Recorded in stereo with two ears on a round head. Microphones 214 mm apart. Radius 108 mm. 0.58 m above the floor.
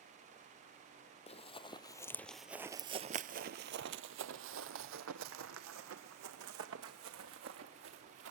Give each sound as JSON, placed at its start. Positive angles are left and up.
{"t": 1.3, "sound": "running footsteps", "side_deg": 25, "distance_m": 1.0}